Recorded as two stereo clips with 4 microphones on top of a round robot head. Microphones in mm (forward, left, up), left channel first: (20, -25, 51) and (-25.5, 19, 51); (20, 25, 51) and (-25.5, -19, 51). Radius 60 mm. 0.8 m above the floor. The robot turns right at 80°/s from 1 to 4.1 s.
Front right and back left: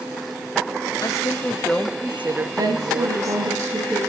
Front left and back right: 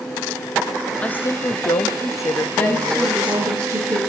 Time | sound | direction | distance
1.0 | a woman speaking | 20° right | 1.1 m
2.5 | a woman speaking | 95° left | 8 m